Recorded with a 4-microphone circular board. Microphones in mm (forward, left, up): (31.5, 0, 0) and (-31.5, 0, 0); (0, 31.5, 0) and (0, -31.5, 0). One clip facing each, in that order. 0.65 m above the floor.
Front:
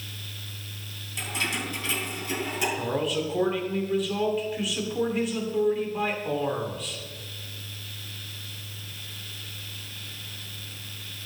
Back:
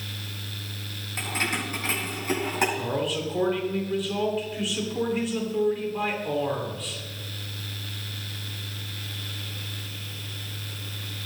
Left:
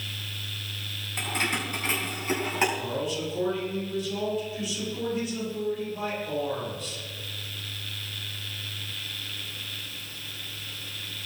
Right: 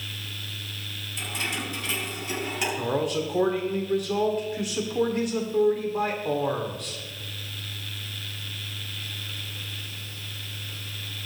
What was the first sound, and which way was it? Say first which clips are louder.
Keys jangling: back 2 dB, left 3 dB; 130° left.